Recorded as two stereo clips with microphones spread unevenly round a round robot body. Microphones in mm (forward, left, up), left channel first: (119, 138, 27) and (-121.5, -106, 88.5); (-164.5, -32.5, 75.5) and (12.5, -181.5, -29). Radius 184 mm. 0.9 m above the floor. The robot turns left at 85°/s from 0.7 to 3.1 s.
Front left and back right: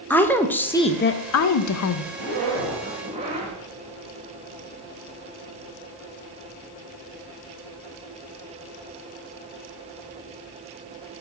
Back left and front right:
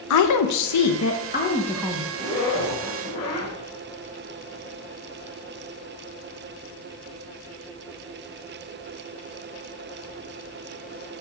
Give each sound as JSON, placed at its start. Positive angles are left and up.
{"t": 0.1, "sound": "a woman speaking", "azimuth_deg": 120, "distance_m": 0.6}
{"t": 2.1, "sound": "a zipper", "azimuth_deg": -125, "distance_m": 3.0}